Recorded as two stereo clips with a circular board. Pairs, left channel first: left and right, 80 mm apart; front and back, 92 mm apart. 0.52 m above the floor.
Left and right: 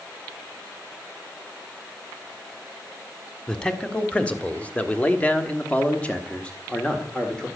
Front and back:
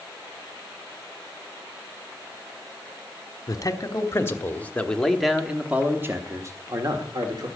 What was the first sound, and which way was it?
A man speaking, 20° left.